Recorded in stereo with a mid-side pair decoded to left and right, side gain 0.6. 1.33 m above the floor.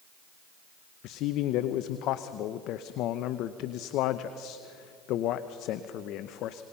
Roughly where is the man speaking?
Ahead left.